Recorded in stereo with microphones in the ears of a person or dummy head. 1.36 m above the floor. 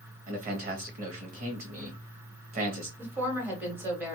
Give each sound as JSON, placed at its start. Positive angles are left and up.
{"t": 0.3, "sound": "a man speaking", "side_deg": -40, "distance_m": 1.1}
{"t": 3.0, "sound": "a woman speaking", "side_deg": -10, "distance_m": 1.2}